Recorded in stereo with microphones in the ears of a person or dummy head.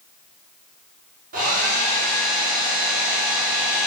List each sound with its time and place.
1.3 s a hair dryer: 40° right (ahead or behind), 0.9 m